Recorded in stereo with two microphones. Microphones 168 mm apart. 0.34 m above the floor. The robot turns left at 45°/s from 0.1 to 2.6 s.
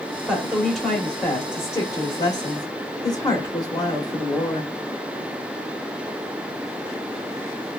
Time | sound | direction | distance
0.3 | a woman speaking | 5° right (ahead or behind) | 1.1 m